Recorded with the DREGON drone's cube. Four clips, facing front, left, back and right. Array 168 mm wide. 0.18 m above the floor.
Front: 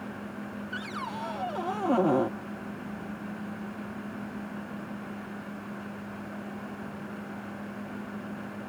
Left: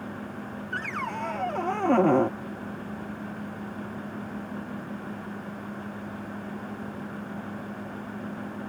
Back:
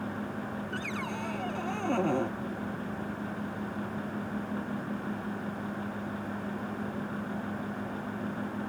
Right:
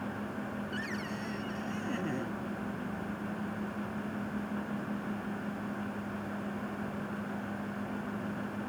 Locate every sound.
0.7 s a cupboard door: 70° left